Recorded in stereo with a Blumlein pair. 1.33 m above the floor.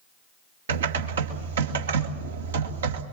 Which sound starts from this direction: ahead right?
Typing on a keyboard, at 0.7 s.